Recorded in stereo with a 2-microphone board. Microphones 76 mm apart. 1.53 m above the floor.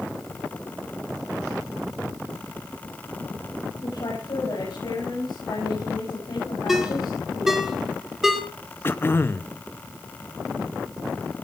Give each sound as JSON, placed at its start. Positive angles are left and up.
{"t": 3.8, "sound": "a woman speaking", "side_deg": 70, "distance_m": 8.5}
{"t": 6.7, "sound": "a ringtone", "side_deg": -5, "distance_m": 2.0}
{"t": 8.8, "sound": "throat clearing", "side_deg": 30, "distance_m": 0.7}